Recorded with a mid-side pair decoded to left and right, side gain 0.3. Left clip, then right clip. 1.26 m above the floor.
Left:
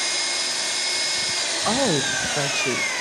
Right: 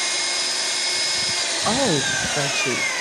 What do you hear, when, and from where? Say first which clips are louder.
0.0 s an engine running: right 1 dB; 25° right, 1.6 m
1.6 s a woman speaking: right 1 dB; 20° right, 0.7 m